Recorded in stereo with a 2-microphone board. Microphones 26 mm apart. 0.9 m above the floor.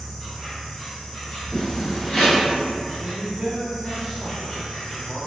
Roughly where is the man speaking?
Right.